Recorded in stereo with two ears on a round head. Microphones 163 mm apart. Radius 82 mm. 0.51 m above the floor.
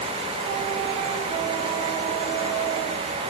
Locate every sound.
Only background noise.